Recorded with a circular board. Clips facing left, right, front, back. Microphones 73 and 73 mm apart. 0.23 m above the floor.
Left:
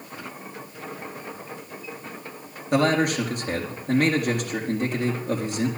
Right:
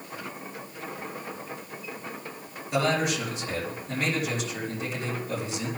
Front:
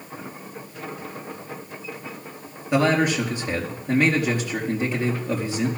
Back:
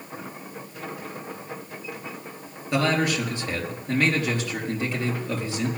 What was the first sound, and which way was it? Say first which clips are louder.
A man speaking: left 5 dB, front 3 dB; 70° left.